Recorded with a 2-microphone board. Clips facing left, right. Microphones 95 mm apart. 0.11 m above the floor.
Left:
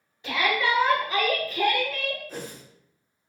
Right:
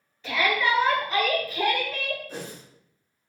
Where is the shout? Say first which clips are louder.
Right 1 dB; 15° left (ahead or behind), 1.8 m; by 2.2 s 20° right (ahead or behind), 1.5 m.